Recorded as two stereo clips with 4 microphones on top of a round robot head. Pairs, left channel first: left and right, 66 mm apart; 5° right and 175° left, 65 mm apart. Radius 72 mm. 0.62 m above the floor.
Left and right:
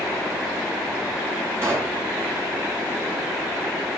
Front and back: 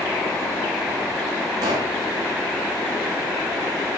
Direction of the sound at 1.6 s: 145° right.